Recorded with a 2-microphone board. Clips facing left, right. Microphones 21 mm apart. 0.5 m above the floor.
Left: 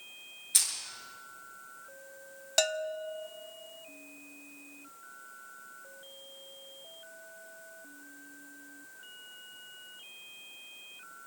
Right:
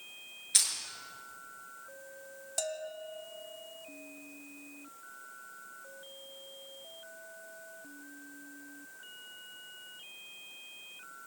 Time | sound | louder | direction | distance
0.5 | crushing | right 1 dB | 15° right (ahead or behind) | 7 m
2.6 | a bell | left 8 dB | 55° left (ahead or behind) | 0.5 m